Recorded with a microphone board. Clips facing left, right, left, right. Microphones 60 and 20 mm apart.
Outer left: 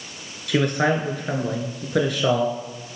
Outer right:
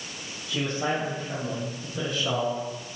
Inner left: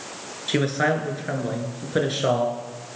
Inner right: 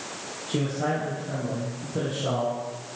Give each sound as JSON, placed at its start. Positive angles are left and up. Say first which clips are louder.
{"t": 0.5, "sound": "a man speaking", "louder": "outer left 7 dB, inner left 5 dB", "side_deg": 70, "distance_m": 5.0}